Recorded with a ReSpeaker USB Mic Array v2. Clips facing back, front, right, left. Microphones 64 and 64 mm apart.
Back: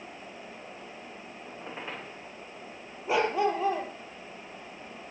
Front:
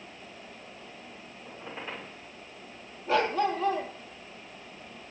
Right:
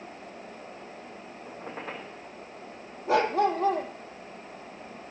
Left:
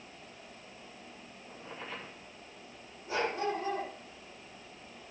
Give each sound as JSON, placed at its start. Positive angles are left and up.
{"t": 1.4, "sound": "a squeak", "azimuth_deg": -110, "distance_m": 9.0}
{"t": 3.1, "sound": "a dog barking", "azimuth_deg": -105, "distance_m": 2.0}